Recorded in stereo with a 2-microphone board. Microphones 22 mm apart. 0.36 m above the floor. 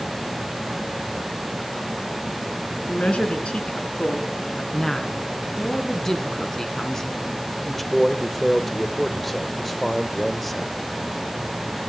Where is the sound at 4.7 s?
25° left (ahead or behind), 3.5 m.